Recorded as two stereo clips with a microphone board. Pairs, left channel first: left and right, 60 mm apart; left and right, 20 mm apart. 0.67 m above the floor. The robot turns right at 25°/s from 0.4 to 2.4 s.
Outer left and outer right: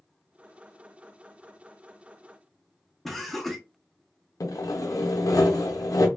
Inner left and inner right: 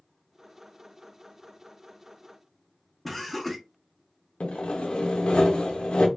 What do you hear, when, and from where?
3.0 s laughter: centre (ahead or behind), 0.9 m
4.4 s sawing: 85° left, 0.6 m